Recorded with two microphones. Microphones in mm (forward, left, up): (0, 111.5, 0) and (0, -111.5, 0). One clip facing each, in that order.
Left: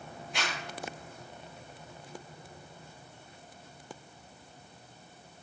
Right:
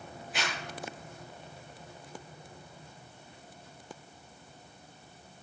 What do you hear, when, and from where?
0.3 s a zipper: centre (ahead or behind), 7.5 m